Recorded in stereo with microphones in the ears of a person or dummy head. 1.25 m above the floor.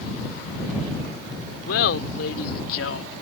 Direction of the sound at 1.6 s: 70° left (ahead or behind).